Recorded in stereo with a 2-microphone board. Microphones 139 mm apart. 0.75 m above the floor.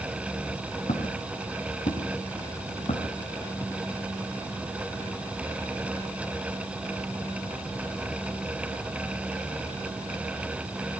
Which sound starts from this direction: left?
Footsteps, at 0.9 s.